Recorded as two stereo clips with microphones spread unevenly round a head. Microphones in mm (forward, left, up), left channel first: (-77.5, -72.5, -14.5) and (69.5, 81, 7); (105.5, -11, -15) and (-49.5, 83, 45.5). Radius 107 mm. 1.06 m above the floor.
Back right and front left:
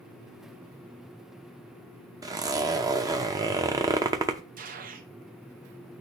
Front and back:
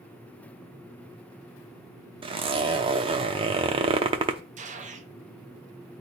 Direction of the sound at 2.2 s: 110° left.